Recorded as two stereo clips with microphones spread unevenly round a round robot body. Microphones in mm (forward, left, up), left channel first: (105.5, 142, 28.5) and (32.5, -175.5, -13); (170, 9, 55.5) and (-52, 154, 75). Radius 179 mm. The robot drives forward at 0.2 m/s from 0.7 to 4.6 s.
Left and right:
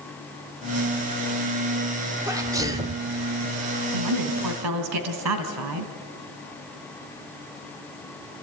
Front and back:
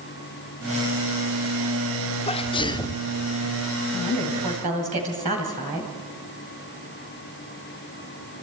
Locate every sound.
2.3 s a sneeze: 50° right, 0.9 m; by 3.0 s 75° right, 0.8 m
3.9 s a woman speaking: 145° right, 2 m